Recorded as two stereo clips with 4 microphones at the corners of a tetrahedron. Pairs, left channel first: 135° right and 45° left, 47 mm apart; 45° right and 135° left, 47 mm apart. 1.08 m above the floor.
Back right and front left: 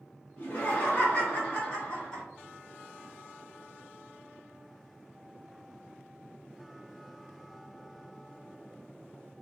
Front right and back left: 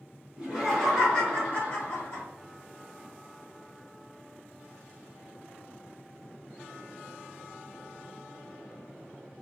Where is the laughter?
165° right, 1.0 m; by 2.2 s 60° right, 1.3 m.